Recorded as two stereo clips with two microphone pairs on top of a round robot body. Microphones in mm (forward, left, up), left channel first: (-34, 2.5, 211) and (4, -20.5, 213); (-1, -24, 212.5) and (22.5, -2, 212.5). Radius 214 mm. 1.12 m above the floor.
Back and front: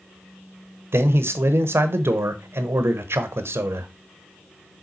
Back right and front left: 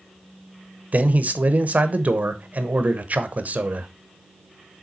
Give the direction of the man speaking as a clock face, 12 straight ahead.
12 o'clock.